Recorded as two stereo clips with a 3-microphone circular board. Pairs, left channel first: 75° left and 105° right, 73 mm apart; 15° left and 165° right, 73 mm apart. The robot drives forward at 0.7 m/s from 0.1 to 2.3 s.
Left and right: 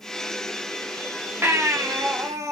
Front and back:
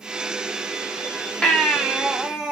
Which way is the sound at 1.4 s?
60° right.